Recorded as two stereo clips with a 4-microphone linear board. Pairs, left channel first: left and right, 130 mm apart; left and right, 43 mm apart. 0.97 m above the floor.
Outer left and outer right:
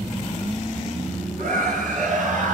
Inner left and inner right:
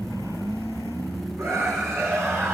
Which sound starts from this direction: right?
A scream, at 1.4 s.